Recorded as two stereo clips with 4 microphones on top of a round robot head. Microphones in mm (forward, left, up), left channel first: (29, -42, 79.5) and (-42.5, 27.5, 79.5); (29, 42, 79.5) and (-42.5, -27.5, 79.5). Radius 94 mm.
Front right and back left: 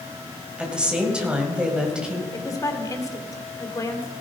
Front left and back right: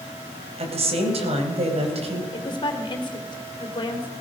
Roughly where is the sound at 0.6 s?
Behind right.